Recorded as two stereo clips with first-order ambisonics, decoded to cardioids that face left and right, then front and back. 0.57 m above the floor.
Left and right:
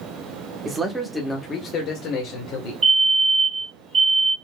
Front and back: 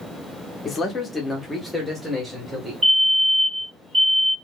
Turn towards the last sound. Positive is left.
turn(degrees=-110)